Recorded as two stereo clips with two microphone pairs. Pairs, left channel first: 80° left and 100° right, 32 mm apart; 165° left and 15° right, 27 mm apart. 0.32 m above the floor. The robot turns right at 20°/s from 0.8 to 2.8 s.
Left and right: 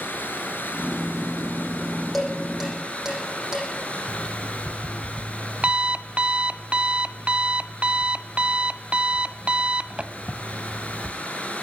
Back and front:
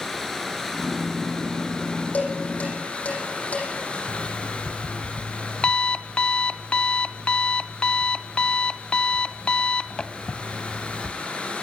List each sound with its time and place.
0.0 s running water: 90° left, 5 m; by 11.6 s 130° left, 5 m
2.1 s dishes clattering: 175° left, 10 m; by 3.7 s 170° right, 10 m
4.1 s an alarm clock: 150° right, 0.7 m